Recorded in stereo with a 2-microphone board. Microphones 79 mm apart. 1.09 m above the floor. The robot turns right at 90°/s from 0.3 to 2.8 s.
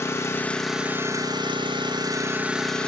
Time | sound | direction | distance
0.0 | an engine running | 150° left | 1.0 m